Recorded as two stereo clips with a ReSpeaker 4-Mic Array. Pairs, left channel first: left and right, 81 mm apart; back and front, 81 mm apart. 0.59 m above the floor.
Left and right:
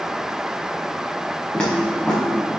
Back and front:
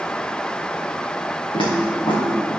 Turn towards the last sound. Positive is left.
turn(degrees=170)